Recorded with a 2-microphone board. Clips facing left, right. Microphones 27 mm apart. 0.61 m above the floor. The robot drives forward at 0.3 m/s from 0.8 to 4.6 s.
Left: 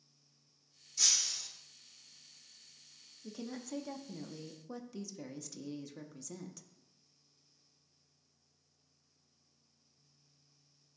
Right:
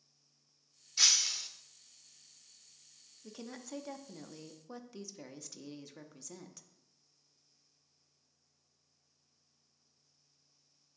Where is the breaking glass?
55° right (ahead or behind), 0.6 m; by 1.5 s 40° right (ahead or behind), 0.7 m.